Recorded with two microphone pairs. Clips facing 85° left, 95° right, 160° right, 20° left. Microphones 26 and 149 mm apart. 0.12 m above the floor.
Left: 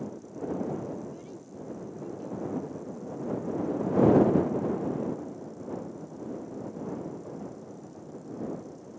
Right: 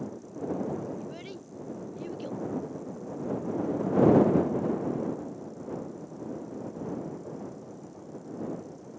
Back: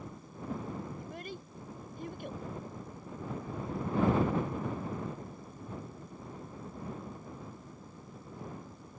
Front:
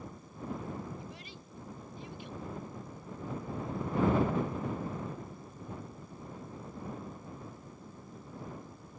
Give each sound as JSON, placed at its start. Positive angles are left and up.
{"t": 1.0, "sound": "a child speaking", "azimuth_deg": -120}